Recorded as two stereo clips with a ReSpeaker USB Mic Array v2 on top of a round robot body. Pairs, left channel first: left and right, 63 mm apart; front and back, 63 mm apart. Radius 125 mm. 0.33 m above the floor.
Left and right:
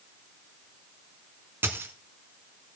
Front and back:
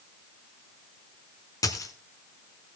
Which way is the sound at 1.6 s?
35° right.